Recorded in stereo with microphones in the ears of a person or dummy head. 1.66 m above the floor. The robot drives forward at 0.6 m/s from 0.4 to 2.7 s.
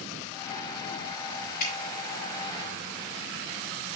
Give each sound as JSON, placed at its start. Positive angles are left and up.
{"t": 1.6, "sound": "dripping", "side_deg": 50, "distance_m": 4.0}